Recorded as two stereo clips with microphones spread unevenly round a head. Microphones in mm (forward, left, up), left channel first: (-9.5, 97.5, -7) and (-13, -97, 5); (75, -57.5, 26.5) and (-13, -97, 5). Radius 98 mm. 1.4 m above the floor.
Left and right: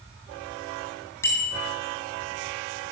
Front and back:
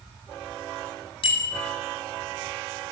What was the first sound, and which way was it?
A bicycle bell, 10° left.